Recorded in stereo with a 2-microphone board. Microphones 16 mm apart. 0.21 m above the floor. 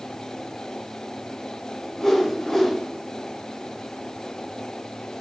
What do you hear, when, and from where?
2.0 s a whoosh: 30° left (ahead or behind), 1.0 m